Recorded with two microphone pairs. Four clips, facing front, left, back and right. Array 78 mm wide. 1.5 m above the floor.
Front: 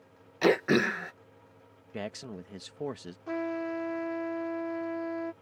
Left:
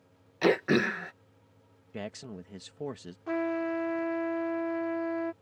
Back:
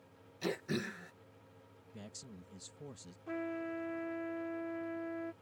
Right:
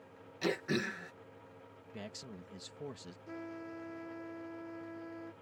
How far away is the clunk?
I don't hear a clunk.